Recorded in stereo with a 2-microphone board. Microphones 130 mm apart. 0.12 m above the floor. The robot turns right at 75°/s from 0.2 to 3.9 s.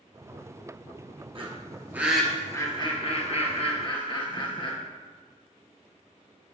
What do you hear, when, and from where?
1.4 s a bird: 45° right (ahead or behind), 1.8 m; by 4.7 s 40° left (ahead or behind), 1.8 m